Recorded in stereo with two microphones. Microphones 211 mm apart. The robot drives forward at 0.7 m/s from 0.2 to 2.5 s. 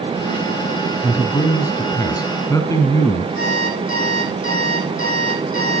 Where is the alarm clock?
75° left (ahead or behind), 6 m.